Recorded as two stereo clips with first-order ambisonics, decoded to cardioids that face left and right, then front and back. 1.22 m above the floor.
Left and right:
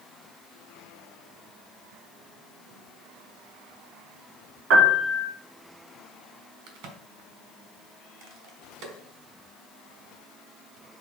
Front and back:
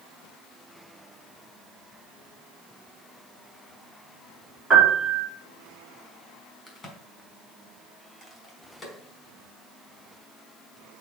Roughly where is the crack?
Right.